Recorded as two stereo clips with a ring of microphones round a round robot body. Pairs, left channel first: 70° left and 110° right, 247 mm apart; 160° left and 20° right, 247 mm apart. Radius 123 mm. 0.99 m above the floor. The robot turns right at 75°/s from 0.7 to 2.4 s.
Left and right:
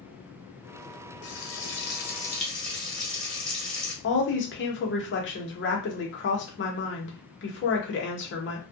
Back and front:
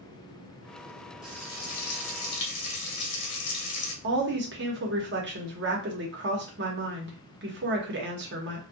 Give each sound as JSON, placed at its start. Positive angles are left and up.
{"t": 1.2, "sound": "frying", "azimuth_deg": 65, "distance_m": 0.9}
{"t": 4.0, "sound": "a woman speaking", "azimuth_deg": 25, "distance_m": 0.9}